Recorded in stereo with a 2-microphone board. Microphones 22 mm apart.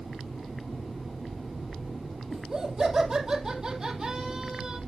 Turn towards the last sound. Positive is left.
turn(degrees=-20)  # may be behind; listen again after turning